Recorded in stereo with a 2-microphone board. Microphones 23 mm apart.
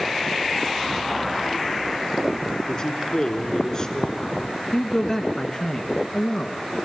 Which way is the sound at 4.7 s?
10° left (ahead or behind).